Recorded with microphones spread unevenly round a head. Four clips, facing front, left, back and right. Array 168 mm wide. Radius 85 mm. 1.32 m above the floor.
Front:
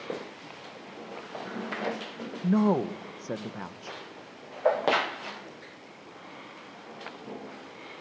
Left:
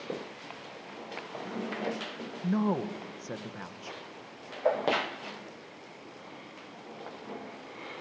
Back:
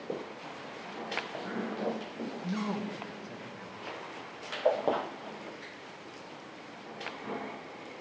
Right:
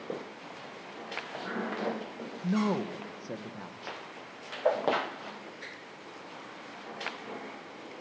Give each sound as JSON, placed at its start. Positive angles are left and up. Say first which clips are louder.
{"t": 2.4, "sound": "a woman speaking", "louder": "even, front 12 dB", "azimuth_deg": -5, "distance_m": 1.1}